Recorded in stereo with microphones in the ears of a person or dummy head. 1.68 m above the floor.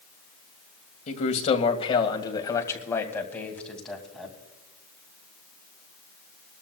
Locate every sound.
1.1 s a man speaking: 45° left (ahead or behind), 1.7 m; by 4.3 s centre (ahead or behind), 2.5 m